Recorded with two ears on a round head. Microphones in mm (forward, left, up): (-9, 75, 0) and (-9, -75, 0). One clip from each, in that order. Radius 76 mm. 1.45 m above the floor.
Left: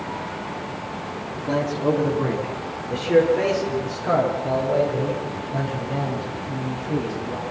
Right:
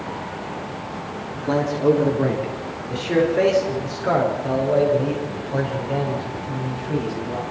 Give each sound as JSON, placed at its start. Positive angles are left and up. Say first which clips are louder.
{"t": 1.4, "sound": "a man speaking", "louder": "right 2 dB", "side_deg": -30, "distance_m": 4.0}